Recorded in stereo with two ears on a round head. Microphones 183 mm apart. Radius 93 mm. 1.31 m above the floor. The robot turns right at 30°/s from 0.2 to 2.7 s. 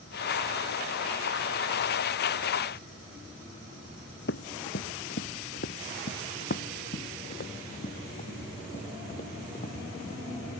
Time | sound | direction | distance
4.3 | running footsteps | 55° left (ahead or behind) | ?